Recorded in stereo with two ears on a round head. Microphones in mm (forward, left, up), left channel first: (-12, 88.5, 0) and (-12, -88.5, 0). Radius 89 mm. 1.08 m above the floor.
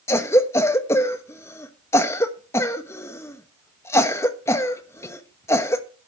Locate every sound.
0.1 s a cough: 15° left (ahead or behind), 1.1 m